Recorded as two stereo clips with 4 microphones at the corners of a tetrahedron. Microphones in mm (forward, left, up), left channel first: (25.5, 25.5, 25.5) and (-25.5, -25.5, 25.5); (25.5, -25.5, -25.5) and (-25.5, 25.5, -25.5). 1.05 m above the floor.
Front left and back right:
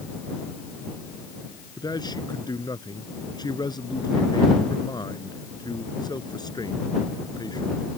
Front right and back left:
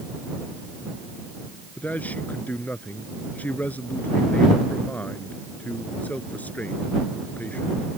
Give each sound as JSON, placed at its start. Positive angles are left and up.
{"t": 1.8, "sound": "a man speaking", "azimuth_deg": 25}